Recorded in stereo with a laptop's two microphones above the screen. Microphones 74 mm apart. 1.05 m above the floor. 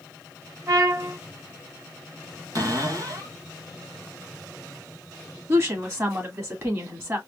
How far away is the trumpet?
About 2.5 m.